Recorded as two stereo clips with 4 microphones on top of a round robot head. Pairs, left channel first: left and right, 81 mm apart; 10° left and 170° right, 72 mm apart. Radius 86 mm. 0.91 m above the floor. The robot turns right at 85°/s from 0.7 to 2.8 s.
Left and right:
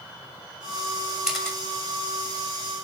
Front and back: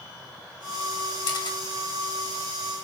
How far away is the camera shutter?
About 2.5 m.